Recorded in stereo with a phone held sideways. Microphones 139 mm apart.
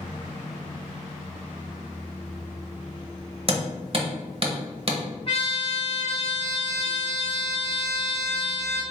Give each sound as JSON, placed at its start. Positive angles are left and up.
{"t": 3.5, "sound": "hammering", "side_deg": -45, "distance_m": 1.0}
{"t": 5.3, "sound": "a trumpet", "side_deg": 40, "distance_m": 1.1}